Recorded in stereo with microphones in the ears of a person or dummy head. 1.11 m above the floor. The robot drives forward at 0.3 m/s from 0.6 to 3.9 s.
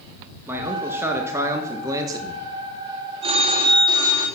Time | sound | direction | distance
0.5 | a man speaking | 10° right (ahead or behind) | 1.3 m
3.2 | a phone ringing | 30° right (ahead or behind) | 1.4 m